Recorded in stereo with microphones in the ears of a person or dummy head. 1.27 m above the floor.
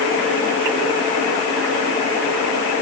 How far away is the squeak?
No squeak in this recording.